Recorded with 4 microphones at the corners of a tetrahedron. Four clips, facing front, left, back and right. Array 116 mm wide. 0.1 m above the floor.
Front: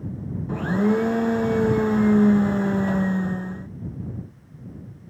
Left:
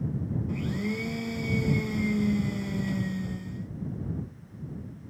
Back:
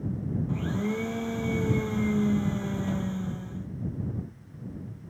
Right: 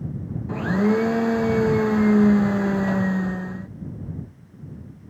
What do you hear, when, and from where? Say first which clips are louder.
0.5 s a blender: right 14 dB, front 12 dB; 55° right